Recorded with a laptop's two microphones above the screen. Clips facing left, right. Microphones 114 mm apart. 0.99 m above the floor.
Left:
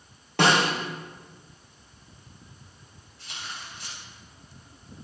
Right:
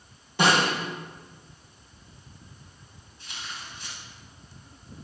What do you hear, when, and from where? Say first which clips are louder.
0.4 s a snare drum: left 1 dB; 80° left, 6 m
3.2 s tearing paper: even; 85° left, 6.5 m